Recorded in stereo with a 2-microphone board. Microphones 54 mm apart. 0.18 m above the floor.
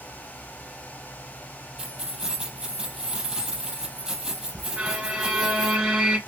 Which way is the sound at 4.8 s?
15° right (ahead or behind).